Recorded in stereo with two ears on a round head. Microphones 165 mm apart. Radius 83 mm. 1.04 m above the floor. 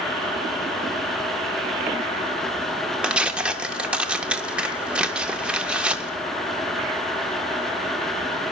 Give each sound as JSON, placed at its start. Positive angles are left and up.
{"t": 3.0, "sound": "tearing paper", "side_deg": -5, "distance_m": 0.6}